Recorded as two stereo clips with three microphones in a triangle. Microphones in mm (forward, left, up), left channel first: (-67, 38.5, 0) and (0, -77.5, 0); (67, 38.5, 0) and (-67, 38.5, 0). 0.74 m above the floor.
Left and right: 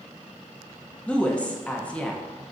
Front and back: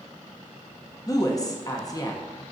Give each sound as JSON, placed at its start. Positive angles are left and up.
{"t": 1.1, "sound": "a woman speaking", "azimuth_deg": 45, "distance_m": 0.6}